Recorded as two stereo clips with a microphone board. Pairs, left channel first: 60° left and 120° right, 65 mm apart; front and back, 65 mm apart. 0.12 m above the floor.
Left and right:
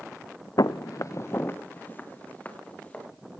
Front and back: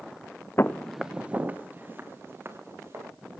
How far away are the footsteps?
About 0.6 m.